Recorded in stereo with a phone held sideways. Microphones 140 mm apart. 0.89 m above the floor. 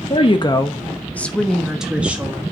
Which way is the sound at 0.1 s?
45° left (ahead or behind).